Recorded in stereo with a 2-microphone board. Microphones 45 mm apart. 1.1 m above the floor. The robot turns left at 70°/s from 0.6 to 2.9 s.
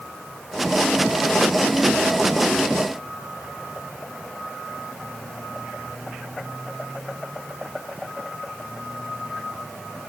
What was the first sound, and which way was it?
Only background noise.